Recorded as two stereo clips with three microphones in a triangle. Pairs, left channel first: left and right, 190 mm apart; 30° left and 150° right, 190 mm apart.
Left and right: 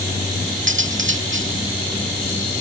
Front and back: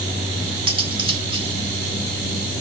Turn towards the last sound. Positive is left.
turn(degrees=-85)